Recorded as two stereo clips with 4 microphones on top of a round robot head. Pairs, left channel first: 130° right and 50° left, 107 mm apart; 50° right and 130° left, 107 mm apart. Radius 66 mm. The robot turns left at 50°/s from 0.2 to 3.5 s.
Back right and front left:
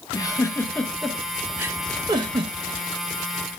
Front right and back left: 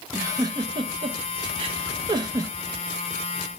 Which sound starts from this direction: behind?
A giggle, at 0.1 s.